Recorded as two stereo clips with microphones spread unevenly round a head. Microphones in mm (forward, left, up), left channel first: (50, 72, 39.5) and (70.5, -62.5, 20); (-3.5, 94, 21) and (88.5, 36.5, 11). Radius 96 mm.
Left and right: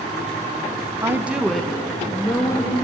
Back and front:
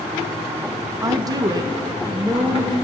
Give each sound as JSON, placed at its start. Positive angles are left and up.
{"t": 1.0, "sound": "a woman speaking", "azimuth_deg": -40, "distance_m": 0.8}